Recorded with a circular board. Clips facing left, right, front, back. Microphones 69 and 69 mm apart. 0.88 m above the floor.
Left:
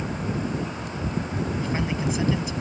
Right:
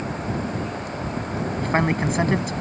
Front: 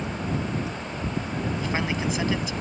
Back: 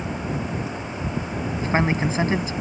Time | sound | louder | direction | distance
1.6 | a man speaking | right 9 dB, back 8 dB | 125° right | ?